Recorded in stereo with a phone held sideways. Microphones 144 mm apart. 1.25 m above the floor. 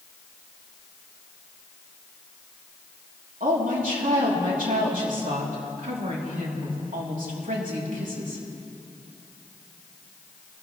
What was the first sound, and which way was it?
A woman speaking, 75° right (ahead or behind).